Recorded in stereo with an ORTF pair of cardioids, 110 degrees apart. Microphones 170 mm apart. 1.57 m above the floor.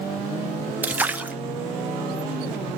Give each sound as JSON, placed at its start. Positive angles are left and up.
{"t": 0.8, "sound": "a splash", "azimuth_deg": -10, "distance_m": 1.3}